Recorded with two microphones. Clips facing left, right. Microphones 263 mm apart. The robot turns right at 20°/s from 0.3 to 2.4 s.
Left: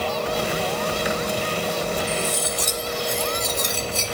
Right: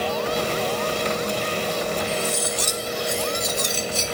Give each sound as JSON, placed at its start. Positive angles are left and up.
{"t": 2.1, "sound": "cutlery clinking", "side_deg": 60, "distance_m": 1.1}